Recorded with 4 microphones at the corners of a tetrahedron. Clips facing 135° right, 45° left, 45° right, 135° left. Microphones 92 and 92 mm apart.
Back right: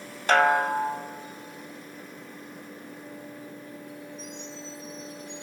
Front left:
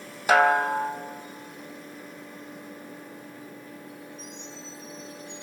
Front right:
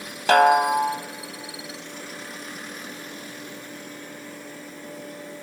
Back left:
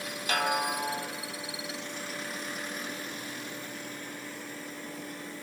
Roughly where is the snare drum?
Ahead right.